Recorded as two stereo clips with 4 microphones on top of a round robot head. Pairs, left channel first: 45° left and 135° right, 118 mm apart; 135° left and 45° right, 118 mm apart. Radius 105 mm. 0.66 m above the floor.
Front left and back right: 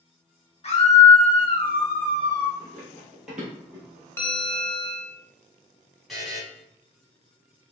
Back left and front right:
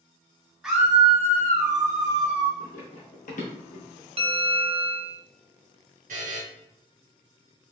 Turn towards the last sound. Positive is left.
turn(degrees=-45)